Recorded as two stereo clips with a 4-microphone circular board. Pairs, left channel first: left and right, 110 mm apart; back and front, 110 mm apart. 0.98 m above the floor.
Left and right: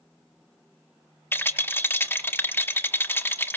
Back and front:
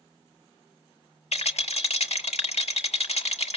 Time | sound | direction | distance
1.3 | a rattle | 160° left | 1.6 m